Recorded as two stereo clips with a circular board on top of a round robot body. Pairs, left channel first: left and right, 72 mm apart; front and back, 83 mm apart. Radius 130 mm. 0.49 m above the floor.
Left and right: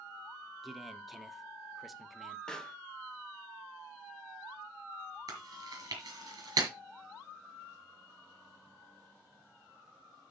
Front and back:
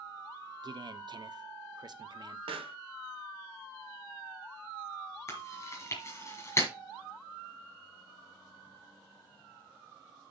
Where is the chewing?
60° right, 5 m.